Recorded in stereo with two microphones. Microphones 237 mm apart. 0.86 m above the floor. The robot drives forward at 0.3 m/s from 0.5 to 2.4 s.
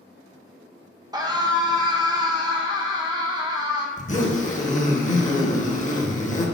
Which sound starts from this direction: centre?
A scream, at 1.1 s.